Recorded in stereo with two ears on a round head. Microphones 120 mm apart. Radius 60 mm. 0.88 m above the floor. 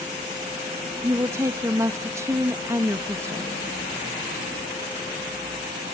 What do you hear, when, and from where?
1.0 s a woman speaking: 20° right (ahead or behind), 0.6 m